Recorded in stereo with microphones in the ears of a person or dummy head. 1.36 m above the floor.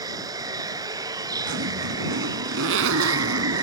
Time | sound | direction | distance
0.0 | running water | 20° right (ahead or behind) | ?
1.5 | a zipper | 75° right (ahead or behind) | ?